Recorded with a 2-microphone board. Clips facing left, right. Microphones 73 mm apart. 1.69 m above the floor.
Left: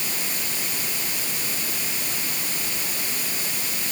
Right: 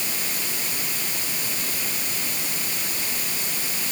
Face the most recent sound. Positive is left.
No sound to turn to.